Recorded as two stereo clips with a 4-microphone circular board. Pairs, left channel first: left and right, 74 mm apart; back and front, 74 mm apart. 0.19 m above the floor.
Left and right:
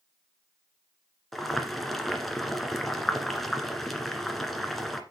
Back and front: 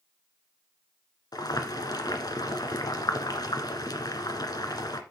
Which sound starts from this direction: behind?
Boiling, at 1.3 s.